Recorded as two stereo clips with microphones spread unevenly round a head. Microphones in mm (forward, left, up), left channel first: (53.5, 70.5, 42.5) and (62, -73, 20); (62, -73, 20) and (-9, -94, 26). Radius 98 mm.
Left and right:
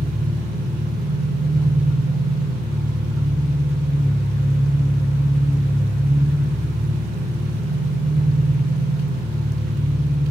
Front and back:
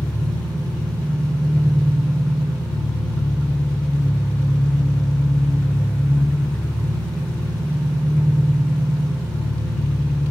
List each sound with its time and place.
0.0 s an engine running: 65° right, 1.0 m